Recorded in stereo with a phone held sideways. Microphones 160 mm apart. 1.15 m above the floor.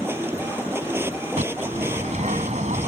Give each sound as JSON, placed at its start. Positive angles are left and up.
{"t": 0.0, "sound": "a machine running", "side_deg": -15}
{"t": 1.4, "sound": "a bird", "side_deg": -45}